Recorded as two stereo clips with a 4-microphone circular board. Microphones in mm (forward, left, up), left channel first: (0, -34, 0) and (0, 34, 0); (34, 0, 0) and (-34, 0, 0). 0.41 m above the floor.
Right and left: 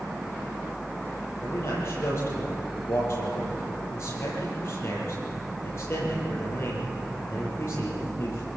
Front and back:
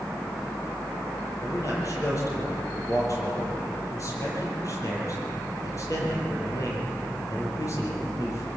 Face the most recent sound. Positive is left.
turn(degrees=-40)